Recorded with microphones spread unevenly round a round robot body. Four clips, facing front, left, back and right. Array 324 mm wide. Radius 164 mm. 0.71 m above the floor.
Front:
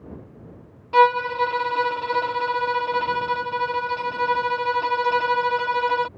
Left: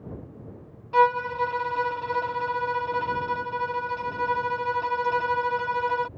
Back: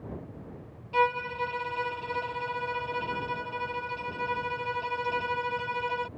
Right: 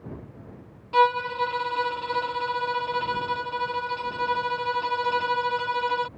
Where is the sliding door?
I don't hear a sliding door.